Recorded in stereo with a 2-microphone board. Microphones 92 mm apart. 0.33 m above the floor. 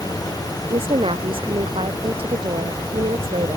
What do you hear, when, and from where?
0.7 s a woman speaking: 85° right